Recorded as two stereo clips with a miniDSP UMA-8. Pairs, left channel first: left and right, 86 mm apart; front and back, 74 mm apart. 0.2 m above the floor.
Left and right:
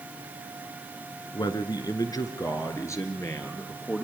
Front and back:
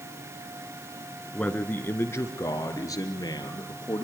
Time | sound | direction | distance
1.3 | a man speaking | 70° left | 2 m